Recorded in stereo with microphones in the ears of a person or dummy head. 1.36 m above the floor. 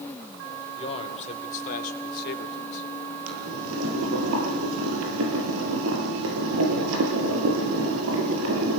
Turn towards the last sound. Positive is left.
turn(degrees=-80)